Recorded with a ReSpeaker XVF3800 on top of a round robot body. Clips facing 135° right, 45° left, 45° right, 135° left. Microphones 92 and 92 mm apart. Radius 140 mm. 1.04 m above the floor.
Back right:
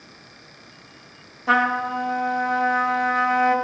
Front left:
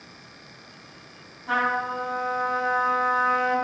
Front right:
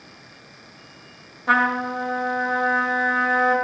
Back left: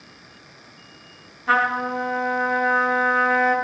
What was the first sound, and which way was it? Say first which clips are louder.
A trumpet: back right 4 dB, even; 115° right.